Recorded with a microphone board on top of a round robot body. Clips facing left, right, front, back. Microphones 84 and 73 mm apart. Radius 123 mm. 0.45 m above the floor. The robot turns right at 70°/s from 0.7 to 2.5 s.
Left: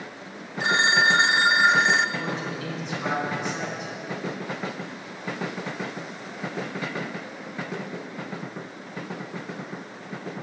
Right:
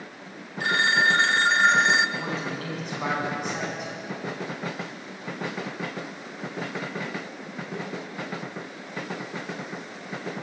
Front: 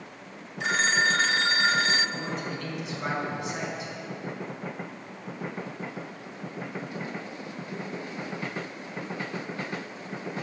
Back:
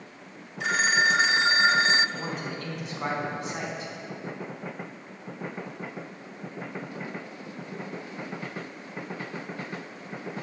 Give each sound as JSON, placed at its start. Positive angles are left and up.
{"t": 0.6, "sound": "a phone ringing", "azimuth_deg": 90, "distance_m": 0.5}
{"t": 2.2, "sound": "a man speaking", "azimuth_deg": -155, "distance_m": 4.0}